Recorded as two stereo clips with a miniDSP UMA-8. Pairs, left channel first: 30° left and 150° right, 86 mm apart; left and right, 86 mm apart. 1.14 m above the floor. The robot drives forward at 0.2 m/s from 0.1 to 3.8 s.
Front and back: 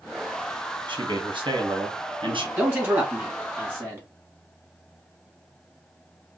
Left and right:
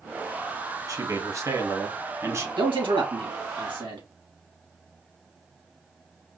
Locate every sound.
0.9 s a man speaking: 135° right, 1.3 m; by 2.5 s 145° right, 1.5 m
2.6 s a man speaking: 85° right, 2.5 m; by 4.0 s 90° right, 2.5 m